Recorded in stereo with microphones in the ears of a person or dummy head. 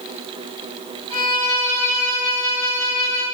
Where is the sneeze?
I don't hear a sneeze.